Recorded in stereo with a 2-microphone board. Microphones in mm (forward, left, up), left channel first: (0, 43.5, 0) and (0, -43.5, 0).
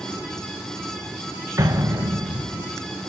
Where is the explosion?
35° right (ahead or behind), 1.6 m.